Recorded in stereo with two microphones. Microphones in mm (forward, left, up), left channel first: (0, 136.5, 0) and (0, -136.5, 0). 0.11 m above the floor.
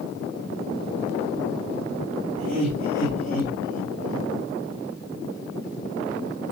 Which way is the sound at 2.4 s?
60° left (ahead or behind).